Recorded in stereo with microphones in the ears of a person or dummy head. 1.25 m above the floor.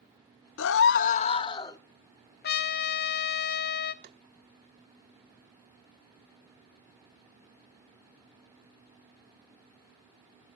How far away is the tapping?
About 0.8 m.